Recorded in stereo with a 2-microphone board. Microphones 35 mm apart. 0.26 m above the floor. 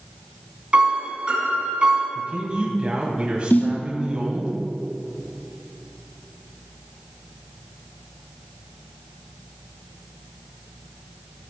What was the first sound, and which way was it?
A piano, 30° right (ahead or behind).